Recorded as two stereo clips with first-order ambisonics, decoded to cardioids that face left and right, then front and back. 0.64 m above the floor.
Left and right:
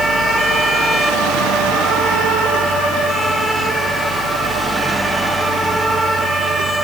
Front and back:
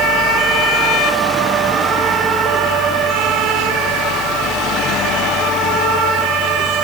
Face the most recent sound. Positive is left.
No sound to turn to.